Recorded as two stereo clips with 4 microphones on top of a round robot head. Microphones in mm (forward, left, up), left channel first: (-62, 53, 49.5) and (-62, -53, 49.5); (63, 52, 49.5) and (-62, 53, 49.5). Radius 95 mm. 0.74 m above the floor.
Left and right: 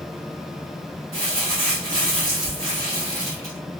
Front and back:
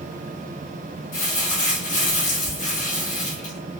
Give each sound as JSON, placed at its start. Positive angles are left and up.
{"t": 1.1, "sound": "crumpling", "azimuth_deg": -30, "distance_m": 1.6}